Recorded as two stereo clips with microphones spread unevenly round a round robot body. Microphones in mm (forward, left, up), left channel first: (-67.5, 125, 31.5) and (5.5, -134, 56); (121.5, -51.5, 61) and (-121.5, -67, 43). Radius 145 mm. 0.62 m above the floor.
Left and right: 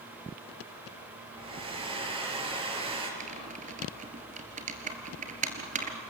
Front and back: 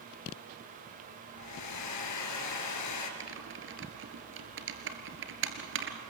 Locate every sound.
1.4 s a hair dryer: straight ahead, 2.5 m
3.2 s typing on a keyboard: 135° right, 2 m